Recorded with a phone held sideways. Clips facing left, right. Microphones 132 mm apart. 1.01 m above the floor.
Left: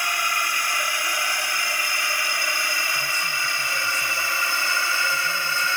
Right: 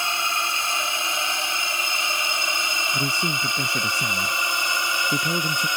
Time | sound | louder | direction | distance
0.0 | a drone | even | 25° right (ahead or behind) | ?
2.9 | a man speaking | right 4 dB | 85° right | ?